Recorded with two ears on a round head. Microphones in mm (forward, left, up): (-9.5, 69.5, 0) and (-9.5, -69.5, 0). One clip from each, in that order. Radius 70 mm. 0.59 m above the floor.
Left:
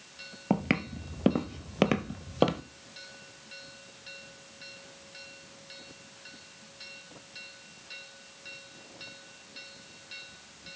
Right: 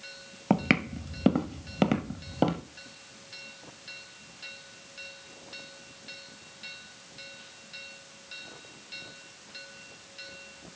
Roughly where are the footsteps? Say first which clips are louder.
Right 4 dB; right.